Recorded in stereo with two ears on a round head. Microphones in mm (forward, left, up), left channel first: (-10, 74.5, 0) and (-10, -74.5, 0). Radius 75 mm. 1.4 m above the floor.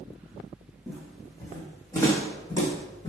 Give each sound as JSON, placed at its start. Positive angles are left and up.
{"t": 0.9, "sound": "footsteps", "side_deg": 5, "distance_m": 3.0}